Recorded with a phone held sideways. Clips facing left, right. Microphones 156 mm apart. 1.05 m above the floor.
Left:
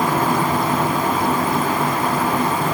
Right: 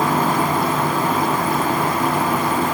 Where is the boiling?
No boiling in this recording.